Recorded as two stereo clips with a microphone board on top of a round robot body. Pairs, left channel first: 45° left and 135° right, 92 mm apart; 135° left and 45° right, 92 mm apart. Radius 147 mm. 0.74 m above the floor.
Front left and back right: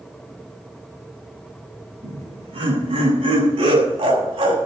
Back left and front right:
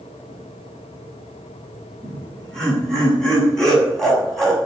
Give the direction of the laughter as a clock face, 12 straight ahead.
5 o'clock.